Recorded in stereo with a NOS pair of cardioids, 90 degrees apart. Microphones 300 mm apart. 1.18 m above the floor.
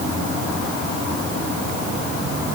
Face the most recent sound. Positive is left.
No sound to turn to.